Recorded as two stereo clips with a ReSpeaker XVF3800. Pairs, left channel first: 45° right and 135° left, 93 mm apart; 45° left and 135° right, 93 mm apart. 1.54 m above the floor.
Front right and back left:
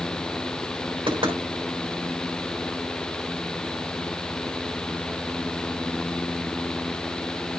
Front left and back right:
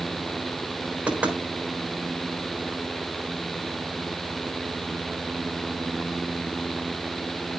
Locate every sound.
1.1 s knocking: 150° left, 3.5 m